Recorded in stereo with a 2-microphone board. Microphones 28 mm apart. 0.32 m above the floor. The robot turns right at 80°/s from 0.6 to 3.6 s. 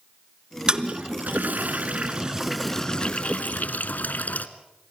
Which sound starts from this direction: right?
A toilet flushing, at 0.7 s.